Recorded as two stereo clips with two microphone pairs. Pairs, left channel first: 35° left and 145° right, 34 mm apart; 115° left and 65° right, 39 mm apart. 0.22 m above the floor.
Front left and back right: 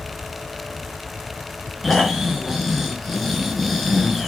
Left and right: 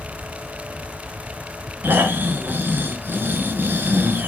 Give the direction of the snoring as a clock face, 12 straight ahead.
2 o'clock.